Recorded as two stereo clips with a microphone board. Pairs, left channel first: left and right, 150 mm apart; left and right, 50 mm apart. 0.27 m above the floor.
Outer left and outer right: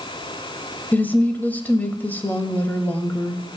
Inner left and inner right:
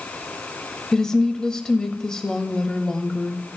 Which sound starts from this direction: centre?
A woman speaking, at 0.9 s.